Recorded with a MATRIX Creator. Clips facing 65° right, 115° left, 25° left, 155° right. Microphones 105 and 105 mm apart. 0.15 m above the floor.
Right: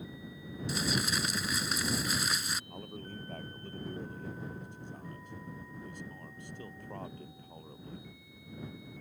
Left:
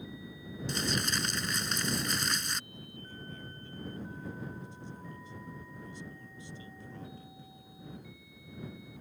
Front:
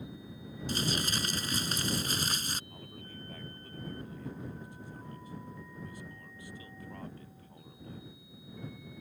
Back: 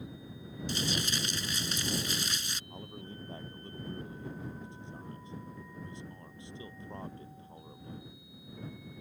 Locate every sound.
0.7 s crumpling: 15° left
2.7 s a man speaking: 95° right